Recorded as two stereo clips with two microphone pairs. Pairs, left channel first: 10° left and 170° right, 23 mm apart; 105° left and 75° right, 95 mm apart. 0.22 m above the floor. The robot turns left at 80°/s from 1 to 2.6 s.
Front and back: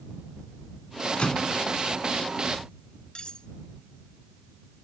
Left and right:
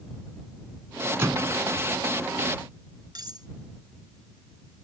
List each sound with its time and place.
1.2 s a microwave: 15° right; by 1.6 s 45° right
3.1 s cutlery clinking: 35° right